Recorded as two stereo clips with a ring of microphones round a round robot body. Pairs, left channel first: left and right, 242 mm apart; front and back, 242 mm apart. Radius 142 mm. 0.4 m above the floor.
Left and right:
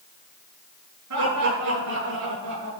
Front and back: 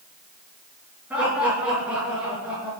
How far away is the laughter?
About 8 m.